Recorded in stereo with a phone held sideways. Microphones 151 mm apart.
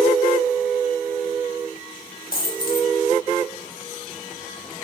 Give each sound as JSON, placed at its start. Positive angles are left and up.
{"t": 2.3, "sound": "a dropped coin", "side_deg": 70, "distance_m": 0.6}